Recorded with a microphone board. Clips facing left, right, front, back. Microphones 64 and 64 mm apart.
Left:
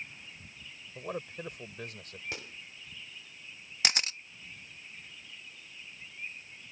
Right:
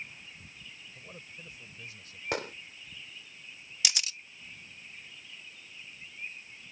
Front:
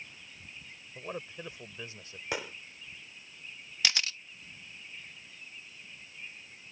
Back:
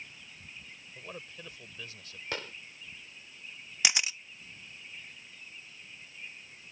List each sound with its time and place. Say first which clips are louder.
0.9 s a man speaking: left 14 dB, front 6 dB; 70° left
2.3 s a gunshot: right 11 dB, front 2 dB; 75° right
3.8 s a camera shutter: left 4 dB, back 1 dB; 115° left